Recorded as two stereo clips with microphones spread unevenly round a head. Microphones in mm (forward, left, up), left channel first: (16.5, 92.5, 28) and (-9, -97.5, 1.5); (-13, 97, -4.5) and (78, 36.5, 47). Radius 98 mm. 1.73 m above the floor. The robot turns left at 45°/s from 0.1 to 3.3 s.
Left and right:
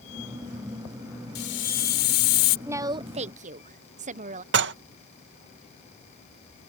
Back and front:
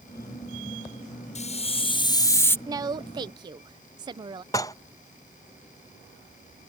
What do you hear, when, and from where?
1.4 s a hiss: 120° left; by 2.6 s 65° left
2.7 s a woman speaking: 15° right; by 4.4 s 45° right
4.5 s dishes clattering: 125° right